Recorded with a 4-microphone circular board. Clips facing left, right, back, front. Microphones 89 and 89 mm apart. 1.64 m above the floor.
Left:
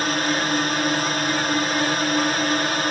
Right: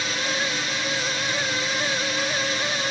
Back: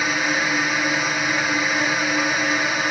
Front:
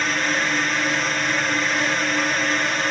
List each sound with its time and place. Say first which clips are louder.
0.0 s a drone: left 5 dB, back 1 dB; 100° left